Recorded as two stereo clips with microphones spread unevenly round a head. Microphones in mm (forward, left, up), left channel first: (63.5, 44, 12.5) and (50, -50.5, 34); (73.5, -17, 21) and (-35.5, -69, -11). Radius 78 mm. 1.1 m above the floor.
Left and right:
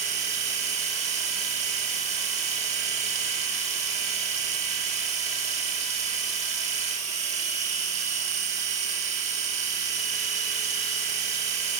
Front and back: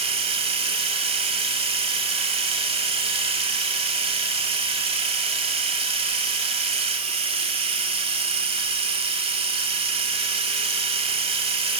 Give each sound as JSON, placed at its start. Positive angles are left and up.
{"t": 0.0, "sound": "a machine running", "azimuth_deg": -110, "distance_m": 1.5}